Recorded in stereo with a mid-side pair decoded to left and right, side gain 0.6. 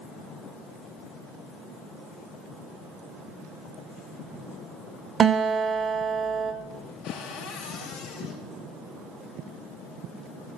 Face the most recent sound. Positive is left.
turn(degrees=55)